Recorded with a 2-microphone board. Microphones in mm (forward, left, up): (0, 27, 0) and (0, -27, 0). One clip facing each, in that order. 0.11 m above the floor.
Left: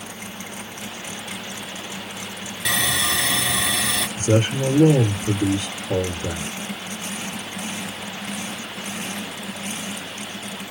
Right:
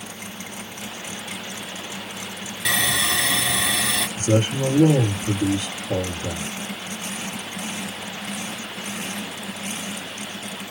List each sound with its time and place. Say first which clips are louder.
2.6 s sawing: even; 5° right (ahead or behind), 2 m
4.2 s a man speaking: left 1 dB; 40° left (ahead or behind), 1.7 m